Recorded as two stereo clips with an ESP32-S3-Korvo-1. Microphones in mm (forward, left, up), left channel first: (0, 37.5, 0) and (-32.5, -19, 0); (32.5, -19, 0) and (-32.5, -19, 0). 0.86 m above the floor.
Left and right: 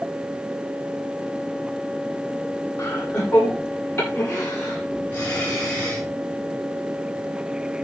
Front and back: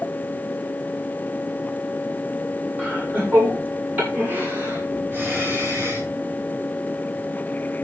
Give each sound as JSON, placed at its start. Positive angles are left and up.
{"t": 2.8, "sound": "laughter", "azimuth_deg": 110, "distance_m": 9.0}